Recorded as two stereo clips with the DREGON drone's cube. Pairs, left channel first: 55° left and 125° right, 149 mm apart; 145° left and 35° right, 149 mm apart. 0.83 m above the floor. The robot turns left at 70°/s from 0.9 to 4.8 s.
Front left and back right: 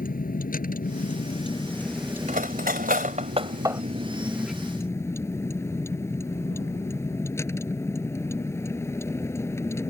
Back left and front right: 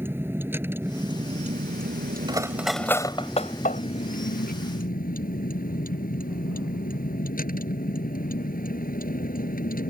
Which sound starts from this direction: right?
Cutlery clinking, at 2.3 s.